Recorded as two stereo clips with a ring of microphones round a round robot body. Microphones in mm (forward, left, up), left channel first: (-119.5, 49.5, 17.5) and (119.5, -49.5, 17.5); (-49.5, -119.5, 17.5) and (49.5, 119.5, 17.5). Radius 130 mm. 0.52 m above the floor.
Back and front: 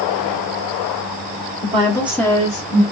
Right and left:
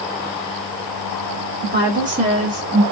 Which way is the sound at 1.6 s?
25° left.